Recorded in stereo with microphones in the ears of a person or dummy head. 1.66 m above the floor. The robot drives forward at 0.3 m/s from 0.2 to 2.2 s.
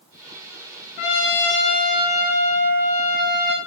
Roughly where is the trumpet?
Left.